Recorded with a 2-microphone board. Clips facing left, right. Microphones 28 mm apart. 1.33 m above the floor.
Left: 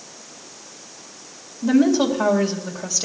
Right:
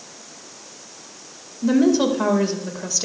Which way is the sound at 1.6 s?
5° right (ahead or behind).